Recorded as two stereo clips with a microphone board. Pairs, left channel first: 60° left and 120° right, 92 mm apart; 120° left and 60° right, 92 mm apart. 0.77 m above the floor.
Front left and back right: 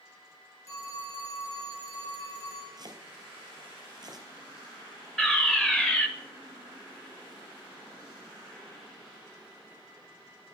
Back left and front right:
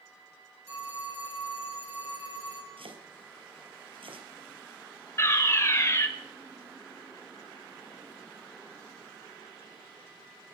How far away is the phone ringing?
About 7 m.